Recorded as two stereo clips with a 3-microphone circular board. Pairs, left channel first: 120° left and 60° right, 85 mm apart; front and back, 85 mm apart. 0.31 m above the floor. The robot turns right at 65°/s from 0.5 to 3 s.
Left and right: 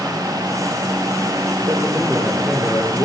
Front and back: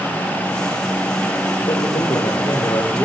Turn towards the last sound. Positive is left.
turn(degrees=70)